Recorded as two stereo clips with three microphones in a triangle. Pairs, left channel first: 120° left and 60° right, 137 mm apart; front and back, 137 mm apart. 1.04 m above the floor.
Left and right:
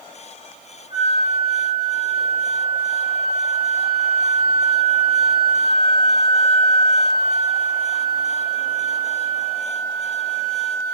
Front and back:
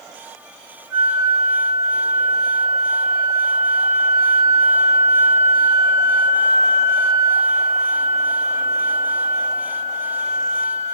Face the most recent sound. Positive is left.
turn(degrees=-105)